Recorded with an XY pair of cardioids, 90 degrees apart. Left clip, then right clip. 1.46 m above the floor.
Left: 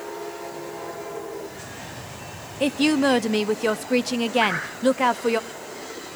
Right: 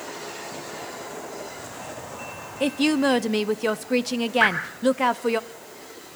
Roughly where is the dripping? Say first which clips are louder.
Right 3 dB; ahead right.